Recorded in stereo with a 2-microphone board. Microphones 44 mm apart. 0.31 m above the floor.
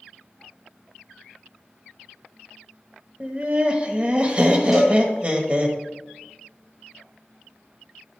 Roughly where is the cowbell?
Centre.